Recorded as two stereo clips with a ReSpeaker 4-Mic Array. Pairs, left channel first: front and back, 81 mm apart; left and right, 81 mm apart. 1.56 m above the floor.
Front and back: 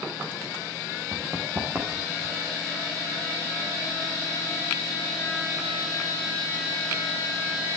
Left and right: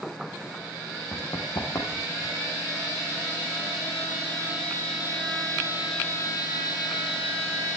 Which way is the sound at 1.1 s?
130° left.